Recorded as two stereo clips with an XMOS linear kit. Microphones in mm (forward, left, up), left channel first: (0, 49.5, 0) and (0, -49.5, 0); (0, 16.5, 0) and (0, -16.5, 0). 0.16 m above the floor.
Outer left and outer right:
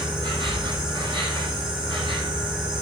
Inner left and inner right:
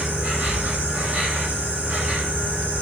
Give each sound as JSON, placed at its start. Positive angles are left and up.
{"t": 0.0, "sound": "an insect", "side_deg": -55, "distance_m": 7.0}